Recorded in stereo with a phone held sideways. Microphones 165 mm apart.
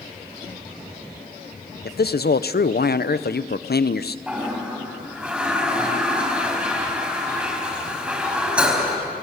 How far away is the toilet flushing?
About 4.5 m.